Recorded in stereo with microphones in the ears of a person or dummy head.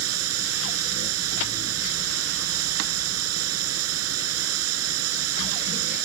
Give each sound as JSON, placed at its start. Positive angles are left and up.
{"t": 0.0, "sound": "running water", "side_deg": -90}